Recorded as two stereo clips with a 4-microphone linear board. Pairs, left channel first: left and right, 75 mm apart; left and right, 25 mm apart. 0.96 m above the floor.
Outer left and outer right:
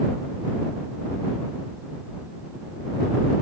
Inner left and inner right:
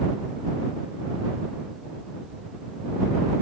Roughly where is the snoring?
I don't hear snoring.